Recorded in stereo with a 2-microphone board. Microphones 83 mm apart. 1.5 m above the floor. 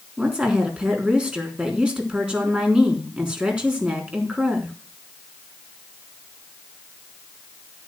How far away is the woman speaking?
About 3.5 m.